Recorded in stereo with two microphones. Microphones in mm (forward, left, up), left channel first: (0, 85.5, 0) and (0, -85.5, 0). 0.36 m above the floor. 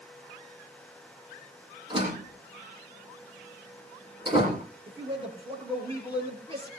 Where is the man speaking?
30° right (ahead or behind), 6.5 m.